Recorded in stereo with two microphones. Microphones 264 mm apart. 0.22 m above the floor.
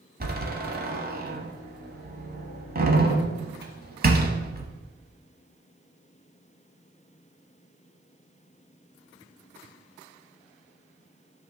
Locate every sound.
0.2 s a door slam: 40° right (ahead or behind), 0.9 m